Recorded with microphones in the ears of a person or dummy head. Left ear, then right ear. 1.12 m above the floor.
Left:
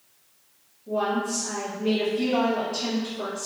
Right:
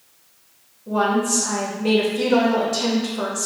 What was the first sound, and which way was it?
A woman speaking, 50° right (ahead or behind).